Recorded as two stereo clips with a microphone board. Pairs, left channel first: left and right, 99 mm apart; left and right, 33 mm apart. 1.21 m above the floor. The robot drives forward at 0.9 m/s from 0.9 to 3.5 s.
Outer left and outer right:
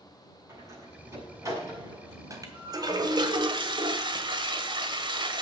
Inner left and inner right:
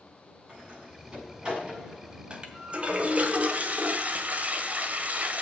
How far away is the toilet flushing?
About 2.0 m.